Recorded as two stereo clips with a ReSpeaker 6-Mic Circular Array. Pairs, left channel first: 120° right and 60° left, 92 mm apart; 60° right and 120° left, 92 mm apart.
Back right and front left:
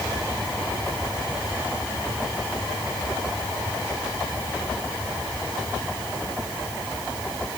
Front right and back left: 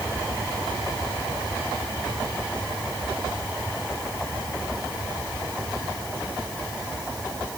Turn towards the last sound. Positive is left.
No sound to turn to.